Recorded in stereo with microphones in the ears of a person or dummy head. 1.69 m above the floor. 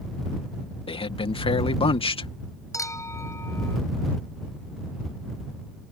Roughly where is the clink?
Centre.